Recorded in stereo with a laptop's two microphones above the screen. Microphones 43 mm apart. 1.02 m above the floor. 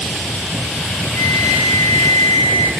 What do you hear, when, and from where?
1.1 s a flute: 70° left (ahead or behind), 0.8 m